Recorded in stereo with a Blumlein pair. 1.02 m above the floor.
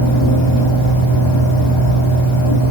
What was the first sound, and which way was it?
A fan, 35° left.